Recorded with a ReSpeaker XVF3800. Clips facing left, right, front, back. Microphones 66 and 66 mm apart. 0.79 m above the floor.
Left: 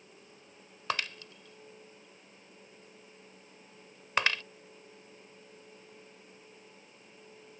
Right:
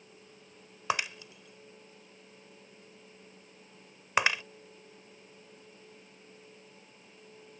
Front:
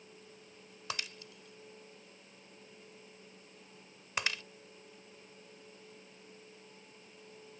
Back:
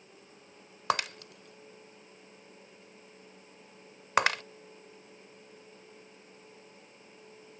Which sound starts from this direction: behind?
Breaking glass, at 0.9 s.